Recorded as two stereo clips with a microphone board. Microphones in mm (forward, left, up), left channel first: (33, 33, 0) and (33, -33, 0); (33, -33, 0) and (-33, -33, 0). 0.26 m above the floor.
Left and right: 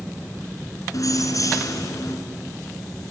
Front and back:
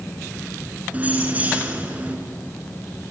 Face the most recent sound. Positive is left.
turn(degrees=115)